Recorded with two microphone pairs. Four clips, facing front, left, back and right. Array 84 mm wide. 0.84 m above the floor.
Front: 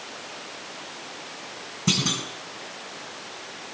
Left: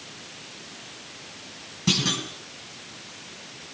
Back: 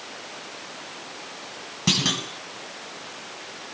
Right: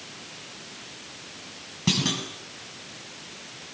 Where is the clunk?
165° right, 6.5 m.